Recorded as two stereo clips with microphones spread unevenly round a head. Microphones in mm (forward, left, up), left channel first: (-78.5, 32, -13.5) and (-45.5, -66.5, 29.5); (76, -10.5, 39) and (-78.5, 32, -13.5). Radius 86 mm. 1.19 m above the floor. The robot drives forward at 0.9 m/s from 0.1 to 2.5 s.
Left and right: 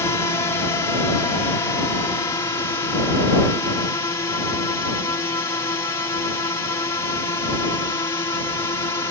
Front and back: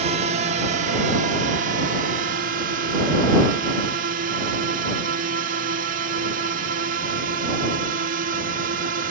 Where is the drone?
145° left; by 9.1 s 160° left.